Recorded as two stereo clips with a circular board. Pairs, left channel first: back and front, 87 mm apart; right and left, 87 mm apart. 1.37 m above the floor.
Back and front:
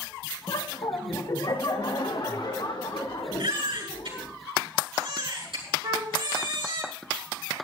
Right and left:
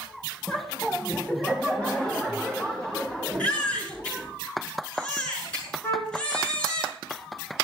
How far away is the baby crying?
About 7.5 m.